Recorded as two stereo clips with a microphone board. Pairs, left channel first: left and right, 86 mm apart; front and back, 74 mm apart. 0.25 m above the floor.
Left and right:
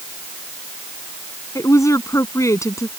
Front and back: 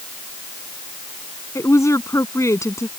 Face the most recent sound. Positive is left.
turn(degrees=40)